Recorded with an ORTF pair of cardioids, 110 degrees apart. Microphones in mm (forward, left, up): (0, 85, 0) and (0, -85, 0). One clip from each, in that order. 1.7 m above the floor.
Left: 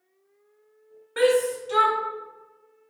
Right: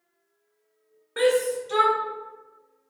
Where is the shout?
5° left, 1.2 m.